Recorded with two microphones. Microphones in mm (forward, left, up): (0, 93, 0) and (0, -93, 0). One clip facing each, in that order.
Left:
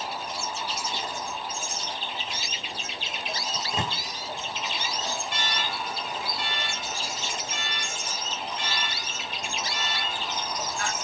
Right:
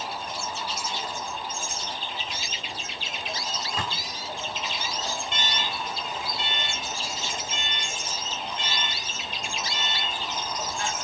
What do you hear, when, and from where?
3.5 s a microwave: 25° left (ahead or behind), 0.6 m
5.3 s an alarm: 25° right (ahead or behind), 1.2 m